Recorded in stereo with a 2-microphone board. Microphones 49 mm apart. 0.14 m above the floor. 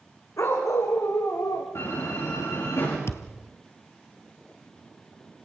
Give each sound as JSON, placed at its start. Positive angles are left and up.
{"t": 0.4, "sound": "a dog barking", "side_deg": 70, "distance_m": 5.0}
{"t": 1.8, "sound": "a door slam", "side_deg": 60, "distance_m": 9.5}
{"t": 3.1, "sound": "a thud", "side_deg": 65, "distance_m": 1.1}